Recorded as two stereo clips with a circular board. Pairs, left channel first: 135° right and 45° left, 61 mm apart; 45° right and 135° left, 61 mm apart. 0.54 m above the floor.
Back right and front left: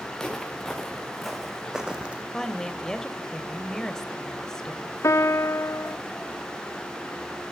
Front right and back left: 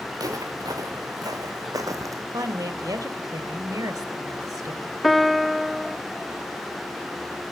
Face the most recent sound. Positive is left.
turn(degrees=-135)